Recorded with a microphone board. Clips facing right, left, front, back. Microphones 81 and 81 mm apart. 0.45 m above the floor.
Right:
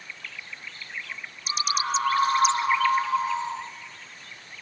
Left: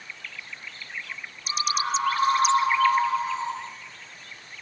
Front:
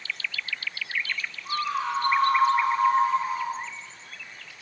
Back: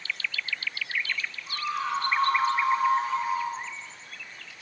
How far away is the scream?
About 4 m.